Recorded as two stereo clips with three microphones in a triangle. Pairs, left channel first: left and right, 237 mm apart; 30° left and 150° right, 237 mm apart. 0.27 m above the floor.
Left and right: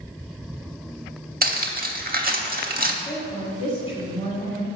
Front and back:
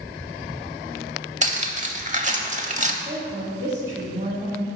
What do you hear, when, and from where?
1.4 s cutlery clinking: 110° right, 0.7 m
3.0 s a woman speaking: 140° left, 1.4 m